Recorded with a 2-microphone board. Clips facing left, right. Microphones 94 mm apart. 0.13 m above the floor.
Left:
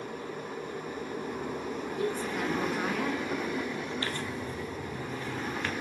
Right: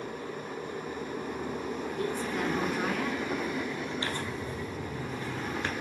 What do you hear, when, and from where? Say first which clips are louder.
2.0 s a woman speaking: left 1 dB; 5° left (ahead or behind), 1.1 m
4.0 s tearing paper: even; 25° right (ahead or behind), 1.2 m